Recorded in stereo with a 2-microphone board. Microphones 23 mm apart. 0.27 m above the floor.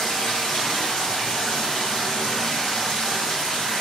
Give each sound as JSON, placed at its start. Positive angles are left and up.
{"t": 0.0, "sound": "running water", "side_deg": 55, "distance_m": 1.4}